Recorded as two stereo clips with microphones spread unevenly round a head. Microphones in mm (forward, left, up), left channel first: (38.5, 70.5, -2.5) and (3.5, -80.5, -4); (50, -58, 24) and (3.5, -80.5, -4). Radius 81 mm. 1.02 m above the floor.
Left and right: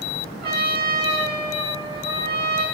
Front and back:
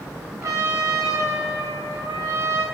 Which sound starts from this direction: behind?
A trumpet, at 0.4 s.